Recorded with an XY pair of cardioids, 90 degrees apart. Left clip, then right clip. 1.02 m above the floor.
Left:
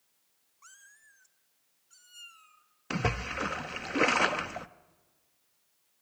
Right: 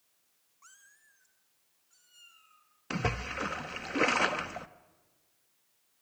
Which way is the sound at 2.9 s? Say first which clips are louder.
Left 2 dB; 15° left.